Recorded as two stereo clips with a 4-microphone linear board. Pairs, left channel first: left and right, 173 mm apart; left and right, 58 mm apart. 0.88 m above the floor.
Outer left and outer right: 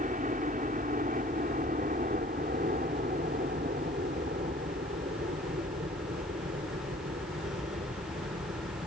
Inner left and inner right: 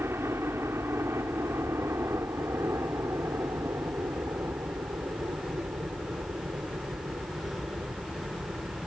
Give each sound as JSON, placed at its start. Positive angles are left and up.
{"t": 0.0, "sound": "a helicopter", "side_deg": -55}